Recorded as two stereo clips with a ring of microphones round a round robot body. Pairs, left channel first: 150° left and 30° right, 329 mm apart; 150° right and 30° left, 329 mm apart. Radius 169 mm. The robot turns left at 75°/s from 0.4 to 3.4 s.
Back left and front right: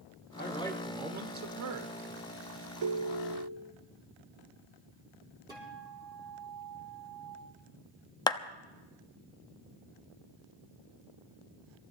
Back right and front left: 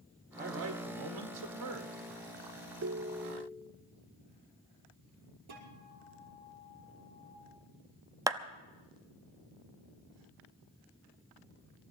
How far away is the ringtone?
About 0.6 m.